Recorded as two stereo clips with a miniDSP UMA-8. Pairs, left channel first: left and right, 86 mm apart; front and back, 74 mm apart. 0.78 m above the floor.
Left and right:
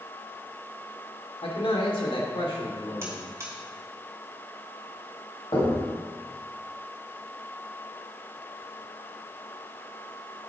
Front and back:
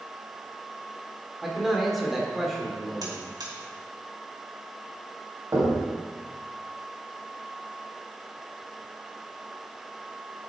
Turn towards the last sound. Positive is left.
turn(degrees=125)